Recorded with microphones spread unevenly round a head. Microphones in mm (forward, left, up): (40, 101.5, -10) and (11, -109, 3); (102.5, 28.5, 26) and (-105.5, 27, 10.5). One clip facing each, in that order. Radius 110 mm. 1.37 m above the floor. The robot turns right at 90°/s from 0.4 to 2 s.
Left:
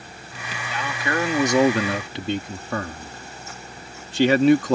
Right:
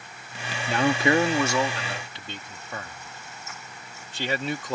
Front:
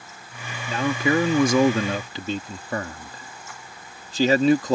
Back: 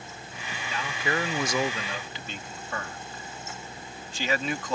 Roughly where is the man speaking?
Ahead right.